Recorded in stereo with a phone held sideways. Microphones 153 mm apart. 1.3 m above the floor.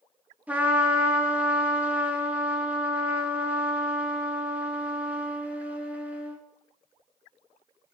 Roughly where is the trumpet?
Centre.